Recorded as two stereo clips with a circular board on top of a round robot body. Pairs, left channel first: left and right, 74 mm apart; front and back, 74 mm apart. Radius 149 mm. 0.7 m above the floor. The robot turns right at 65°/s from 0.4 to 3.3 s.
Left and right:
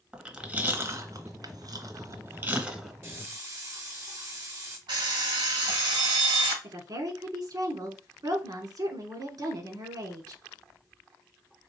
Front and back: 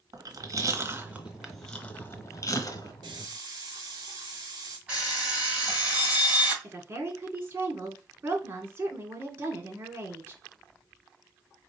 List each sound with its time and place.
0.1 s chewing: 165° right, 1.7 m; by 2.9 s straight ahead, 1.7 m
3.0 s a hiss: 150° right, 1.1 m; by 4.8 s 135° right, 1.1 m
4.9 s an alarm clock: 105° right, 3 m
6.6 s a woman speaking: 120° right, 2.0 m